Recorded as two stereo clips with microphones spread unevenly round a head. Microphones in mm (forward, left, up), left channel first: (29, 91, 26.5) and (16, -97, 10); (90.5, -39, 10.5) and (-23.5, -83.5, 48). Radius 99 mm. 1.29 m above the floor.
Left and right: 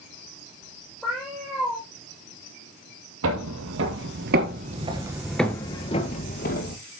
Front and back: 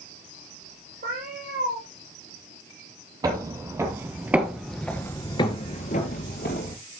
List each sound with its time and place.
1.0 s a cat meowing: 175° left, 6 m
3.2 s footsteps: 110° right, 2.5 m; by 6.8 s 65° left, 2 m